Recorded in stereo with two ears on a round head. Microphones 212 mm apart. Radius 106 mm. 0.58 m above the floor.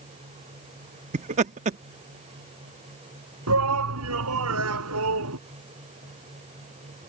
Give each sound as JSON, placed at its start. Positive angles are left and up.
{"t": 1.1, "sound": "laughter", "side_deg": -30}
{"t": 3.5, "sound": "a shout", "side_deg": -75}